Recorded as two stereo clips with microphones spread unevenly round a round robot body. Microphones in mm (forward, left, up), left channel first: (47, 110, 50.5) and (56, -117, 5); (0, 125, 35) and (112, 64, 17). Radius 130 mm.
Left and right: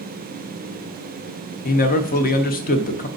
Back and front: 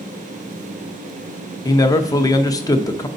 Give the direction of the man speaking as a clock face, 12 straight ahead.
8 o'clock.